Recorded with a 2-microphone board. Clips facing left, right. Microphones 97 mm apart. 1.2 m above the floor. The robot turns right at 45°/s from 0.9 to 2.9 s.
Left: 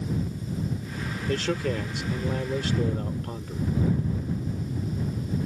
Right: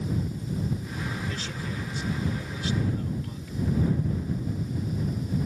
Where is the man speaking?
60° left; by 3.8 s 130° left.